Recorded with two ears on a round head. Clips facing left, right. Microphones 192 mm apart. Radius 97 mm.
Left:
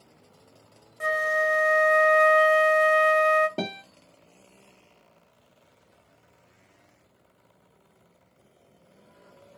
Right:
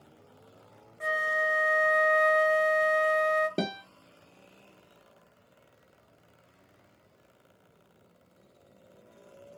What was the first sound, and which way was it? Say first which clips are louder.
A flute: left 5 dB; 50° left (ahead or behind).